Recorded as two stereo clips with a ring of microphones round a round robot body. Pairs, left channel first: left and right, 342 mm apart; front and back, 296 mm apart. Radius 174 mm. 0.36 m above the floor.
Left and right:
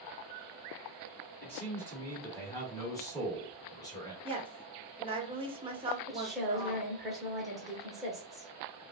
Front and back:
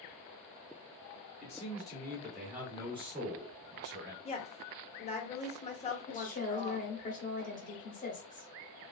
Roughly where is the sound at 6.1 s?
Ahead.